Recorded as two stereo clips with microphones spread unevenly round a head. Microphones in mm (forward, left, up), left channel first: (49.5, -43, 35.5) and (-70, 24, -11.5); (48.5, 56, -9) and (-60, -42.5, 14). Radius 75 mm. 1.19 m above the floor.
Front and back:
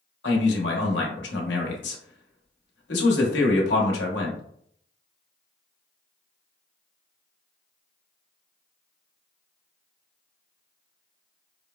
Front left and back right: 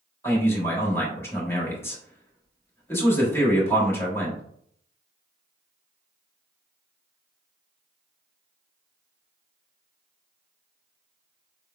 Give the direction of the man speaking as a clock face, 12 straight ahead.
1 o'clock.